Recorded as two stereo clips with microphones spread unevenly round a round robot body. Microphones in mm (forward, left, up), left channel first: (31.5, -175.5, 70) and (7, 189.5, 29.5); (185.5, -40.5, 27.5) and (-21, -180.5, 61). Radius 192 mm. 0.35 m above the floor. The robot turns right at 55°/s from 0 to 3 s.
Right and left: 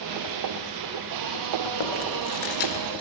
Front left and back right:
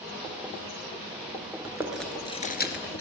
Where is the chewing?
75° right, 1.6 m; by 3.0 s straight ahead, 1.6 m.